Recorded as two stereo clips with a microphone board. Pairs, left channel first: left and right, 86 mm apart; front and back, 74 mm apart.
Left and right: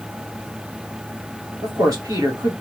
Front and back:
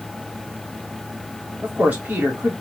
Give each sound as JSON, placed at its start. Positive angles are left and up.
{"t": 1.6, "sound": "a man speaking", "azimuth_deg": -115, "distance_m": 2.5}